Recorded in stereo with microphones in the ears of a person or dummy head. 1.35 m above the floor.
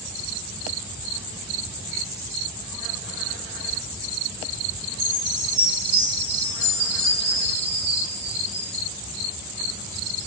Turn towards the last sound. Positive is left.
turn(degrees=10)  # may be behind; listen again after turning